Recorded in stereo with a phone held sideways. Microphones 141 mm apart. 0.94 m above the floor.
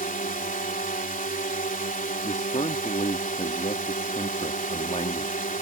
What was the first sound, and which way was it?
A drone, 70° left (ahead or behind).